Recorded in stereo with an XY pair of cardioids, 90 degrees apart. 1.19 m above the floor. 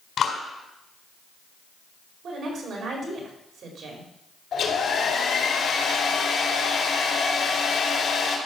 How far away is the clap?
About 4 m.